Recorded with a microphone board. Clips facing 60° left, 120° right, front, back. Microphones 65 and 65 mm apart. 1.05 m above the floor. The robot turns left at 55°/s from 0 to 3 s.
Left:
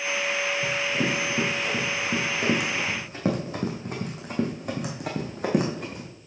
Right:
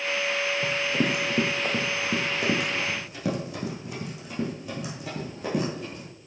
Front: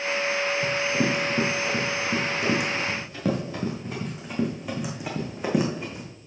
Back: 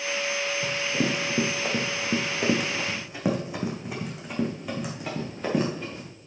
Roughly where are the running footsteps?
Right.